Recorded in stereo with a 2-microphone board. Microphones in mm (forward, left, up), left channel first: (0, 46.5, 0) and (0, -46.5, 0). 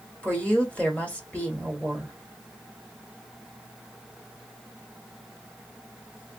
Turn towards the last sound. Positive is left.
turn(degrees=15)  # may be behind; listen again after turning